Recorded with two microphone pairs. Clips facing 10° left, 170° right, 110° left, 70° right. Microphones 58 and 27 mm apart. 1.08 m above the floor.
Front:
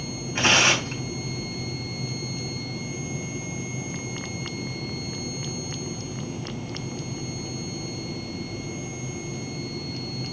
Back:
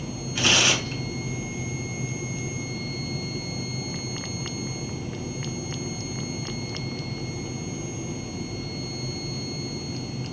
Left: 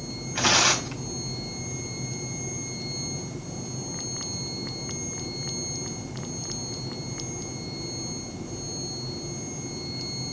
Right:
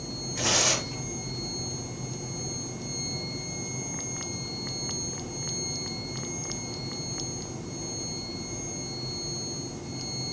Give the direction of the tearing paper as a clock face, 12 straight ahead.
10 o'clock.